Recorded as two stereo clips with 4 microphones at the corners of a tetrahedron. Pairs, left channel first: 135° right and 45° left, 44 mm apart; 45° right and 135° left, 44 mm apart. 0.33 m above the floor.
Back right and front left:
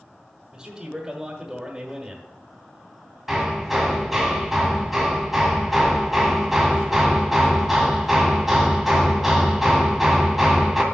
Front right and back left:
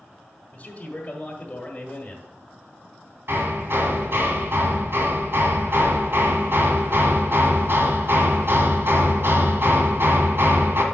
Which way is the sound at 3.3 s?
130° left.